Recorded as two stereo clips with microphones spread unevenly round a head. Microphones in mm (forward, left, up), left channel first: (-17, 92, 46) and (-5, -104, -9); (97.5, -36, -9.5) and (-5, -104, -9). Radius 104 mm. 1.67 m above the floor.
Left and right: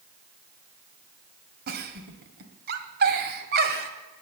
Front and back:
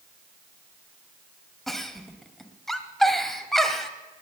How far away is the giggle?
About 1.7 m.